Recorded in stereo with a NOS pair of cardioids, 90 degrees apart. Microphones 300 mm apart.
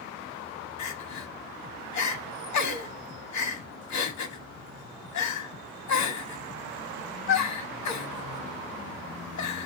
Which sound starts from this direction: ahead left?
Crying, at 0.8 s.